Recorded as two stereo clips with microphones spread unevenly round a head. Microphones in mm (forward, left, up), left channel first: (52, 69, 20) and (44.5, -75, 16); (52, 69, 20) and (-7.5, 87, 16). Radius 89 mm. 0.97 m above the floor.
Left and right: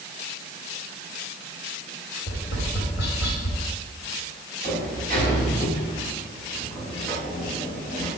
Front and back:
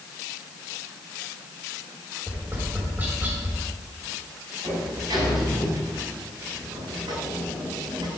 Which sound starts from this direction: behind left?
A sliding door, at 4.6 s.